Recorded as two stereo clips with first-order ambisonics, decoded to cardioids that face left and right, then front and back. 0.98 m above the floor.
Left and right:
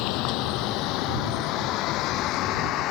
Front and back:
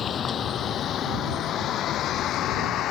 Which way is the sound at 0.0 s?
65° left.